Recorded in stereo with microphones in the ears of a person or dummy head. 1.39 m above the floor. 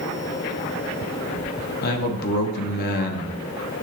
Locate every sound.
1.8 s a man speaking: 50° left (ahead or behind), 1.2 m